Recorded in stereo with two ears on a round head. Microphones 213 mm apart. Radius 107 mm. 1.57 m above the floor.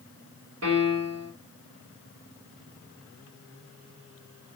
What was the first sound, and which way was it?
A piano, 65° right (ahead or behind).